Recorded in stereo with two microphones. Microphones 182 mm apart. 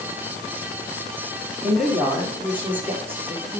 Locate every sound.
1.6 s a woman speaking: centre (ahead or behind), 6.5 m; by 3.6 s 15° right (ahead or behind), 5.5 m